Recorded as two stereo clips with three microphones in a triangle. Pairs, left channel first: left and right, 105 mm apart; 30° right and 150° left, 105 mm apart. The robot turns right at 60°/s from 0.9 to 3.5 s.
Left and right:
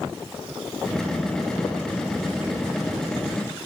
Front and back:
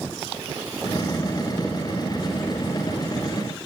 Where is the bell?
I don't hear a bell.